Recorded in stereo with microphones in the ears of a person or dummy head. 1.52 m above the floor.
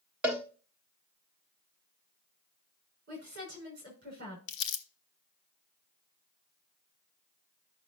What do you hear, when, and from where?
0.2 s a cowbell: 5° right (ahead or behind), 1.3 m
3.1 s a woman speaking: 50° right (ahead or behind), 6 m
4.5 s crumpling: 70° left (ahead or behind), 1.1 m